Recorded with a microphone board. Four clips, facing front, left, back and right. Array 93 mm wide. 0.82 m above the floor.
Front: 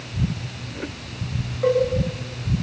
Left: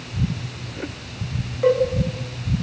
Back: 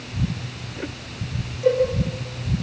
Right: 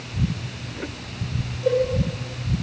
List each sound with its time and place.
1.6 s a cowbell: 55° left, 6 m